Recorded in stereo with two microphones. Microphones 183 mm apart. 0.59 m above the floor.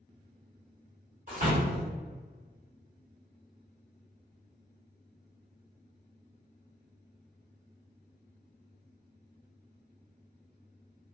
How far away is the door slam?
About 1.2 m.